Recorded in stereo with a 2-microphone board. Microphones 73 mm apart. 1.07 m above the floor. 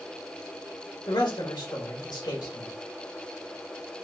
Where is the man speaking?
80° left, 2.5 m.